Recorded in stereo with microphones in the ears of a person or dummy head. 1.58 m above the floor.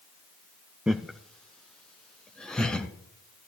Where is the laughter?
5° right (ahead or behind), 0.5 m; by 2.9 s 10° left (ahead or behind), 1.7 m.